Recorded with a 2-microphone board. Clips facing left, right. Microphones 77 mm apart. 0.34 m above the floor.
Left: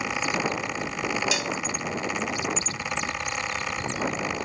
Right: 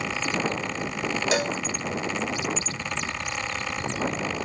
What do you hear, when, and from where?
1.3 s a cowbell: 40° right (ahead or behind)